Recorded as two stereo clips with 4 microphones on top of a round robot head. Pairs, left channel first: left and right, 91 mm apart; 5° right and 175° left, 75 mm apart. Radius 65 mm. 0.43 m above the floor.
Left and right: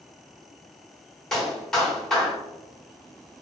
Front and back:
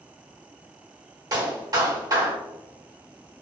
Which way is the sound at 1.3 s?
170° left.